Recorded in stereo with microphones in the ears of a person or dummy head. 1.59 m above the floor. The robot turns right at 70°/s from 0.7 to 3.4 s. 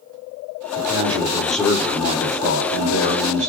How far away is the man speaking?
About 5.5 m.